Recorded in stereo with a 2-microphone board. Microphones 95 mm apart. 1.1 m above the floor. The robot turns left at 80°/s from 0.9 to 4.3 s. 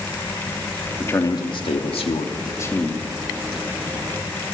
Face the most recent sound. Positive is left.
turn(degrees=-105)